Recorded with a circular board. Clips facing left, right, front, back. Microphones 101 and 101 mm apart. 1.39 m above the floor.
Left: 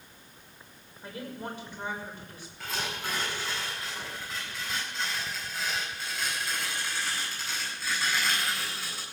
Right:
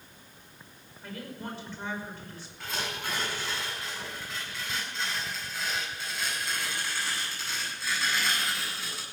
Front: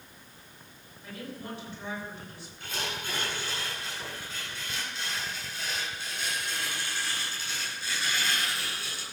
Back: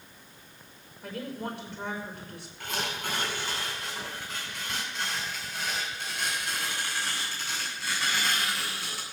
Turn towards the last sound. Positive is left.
turn(degrees=180)